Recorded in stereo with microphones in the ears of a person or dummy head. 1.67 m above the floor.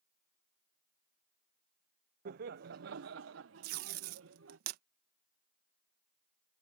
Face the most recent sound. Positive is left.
turn(degrees=-50)  # may be behind; listen again after turning